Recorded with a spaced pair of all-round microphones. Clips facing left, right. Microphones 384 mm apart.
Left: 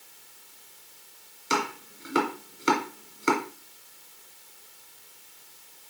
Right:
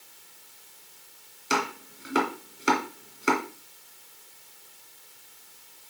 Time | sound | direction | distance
1.5 | chopping | centre (ahead or behind) | 1.9 m